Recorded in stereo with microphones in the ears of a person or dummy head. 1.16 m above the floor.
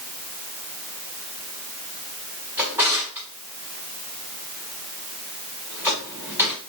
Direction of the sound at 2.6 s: 10° right (ahead or behind).